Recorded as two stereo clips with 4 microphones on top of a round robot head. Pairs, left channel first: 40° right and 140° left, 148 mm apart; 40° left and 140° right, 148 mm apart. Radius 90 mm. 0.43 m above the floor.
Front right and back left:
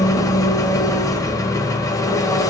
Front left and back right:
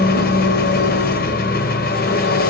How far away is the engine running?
About 1.0 m.